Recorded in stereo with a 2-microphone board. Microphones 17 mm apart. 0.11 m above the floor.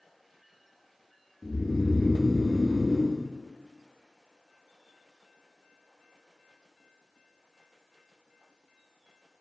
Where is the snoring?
40° right (ahead or behind), 4 m.